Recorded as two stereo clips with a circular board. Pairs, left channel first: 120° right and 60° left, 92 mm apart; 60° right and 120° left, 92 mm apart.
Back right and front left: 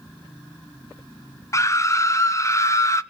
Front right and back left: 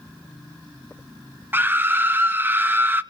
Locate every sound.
1.5 s a scream: 175° right, 1.0 m